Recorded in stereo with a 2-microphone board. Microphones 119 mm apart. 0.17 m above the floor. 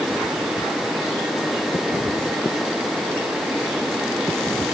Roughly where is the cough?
No cough in this recording.